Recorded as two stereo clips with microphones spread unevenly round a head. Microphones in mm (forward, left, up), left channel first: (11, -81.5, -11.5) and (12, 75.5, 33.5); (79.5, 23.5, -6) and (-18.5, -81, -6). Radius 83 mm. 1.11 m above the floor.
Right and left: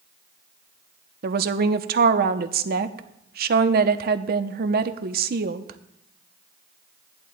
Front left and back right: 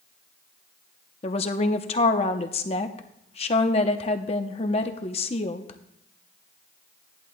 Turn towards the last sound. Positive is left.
turn(degrees=75)